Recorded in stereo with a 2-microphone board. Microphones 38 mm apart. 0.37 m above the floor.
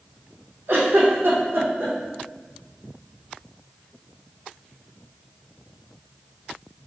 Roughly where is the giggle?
Right.